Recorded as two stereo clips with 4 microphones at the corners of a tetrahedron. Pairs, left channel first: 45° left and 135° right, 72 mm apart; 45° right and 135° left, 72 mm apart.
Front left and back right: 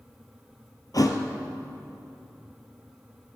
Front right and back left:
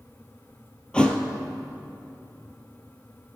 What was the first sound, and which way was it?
A thud, 30° left.